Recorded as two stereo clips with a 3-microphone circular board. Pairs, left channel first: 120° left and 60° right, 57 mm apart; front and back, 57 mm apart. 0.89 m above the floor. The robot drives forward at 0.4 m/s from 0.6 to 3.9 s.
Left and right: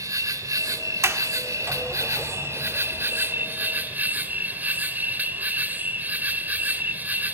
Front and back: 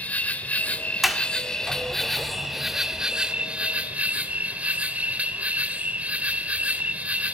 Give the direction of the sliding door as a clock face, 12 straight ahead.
3 o'clock.